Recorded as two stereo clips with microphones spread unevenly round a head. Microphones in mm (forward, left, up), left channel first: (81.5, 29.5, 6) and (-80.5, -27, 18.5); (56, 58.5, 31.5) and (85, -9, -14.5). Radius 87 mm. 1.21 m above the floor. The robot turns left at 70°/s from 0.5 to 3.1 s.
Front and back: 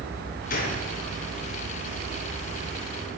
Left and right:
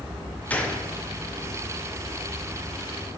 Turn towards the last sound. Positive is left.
turn(degrees=-165)